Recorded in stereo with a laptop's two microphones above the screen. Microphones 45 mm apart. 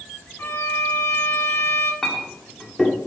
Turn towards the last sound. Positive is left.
turn(degrees=10)  # may be behind; listen again after turning